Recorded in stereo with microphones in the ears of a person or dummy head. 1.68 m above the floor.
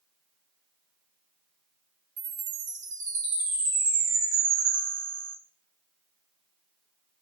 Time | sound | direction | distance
2.2 | a chime | 20° right (ahead or behind) | 2.5 m